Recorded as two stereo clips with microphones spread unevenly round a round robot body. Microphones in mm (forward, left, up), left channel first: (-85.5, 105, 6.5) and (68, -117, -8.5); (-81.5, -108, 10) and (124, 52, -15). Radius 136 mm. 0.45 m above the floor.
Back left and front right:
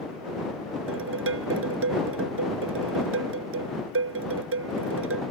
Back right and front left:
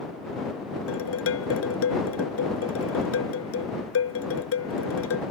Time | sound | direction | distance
0.9 | dishes clattering | 100° right | ?